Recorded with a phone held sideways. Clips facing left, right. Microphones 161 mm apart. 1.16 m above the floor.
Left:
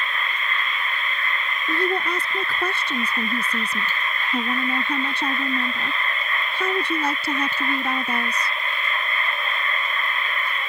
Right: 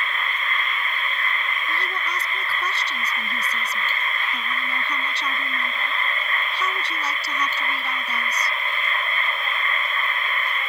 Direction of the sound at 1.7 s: 50° left (ahead or behind).